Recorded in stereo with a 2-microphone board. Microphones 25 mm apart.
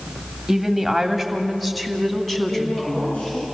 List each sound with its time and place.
0.5 s a woman speaking: 10° right (ahead or behind), 1.8 m; by 3.3 s 15° left (ahead or behind), 3 m
2.5 s a woman speaking: 75° left (ahead or behind), 5.5 m